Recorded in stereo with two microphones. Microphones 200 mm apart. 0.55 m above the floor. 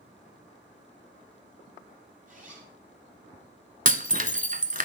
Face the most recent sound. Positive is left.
turn(degrees=-40)  # may be behind; listen again after turning